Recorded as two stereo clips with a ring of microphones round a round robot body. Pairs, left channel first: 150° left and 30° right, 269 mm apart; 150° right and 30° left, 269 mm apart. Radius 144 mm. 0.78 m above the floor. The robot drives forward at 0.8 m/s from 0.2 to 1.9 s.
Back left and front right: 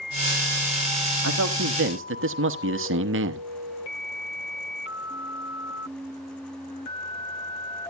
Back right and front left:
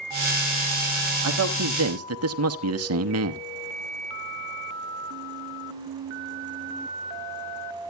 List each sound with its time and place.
1.2 s a man speaking: 5° left, 1.5 m